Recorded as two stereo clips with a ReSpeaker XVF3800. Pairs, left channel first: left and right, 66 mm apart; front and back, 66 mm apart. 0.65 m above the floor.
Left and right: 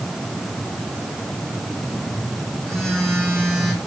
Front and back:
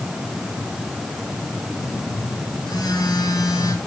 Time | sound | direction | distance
1.8 | a phone buzzing | 5° left | 10 m